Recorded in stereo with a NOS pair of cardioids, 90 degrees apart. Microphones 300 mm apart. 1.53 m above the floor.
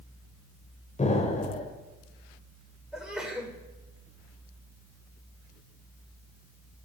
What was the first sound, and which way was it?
An explosion, 25° left.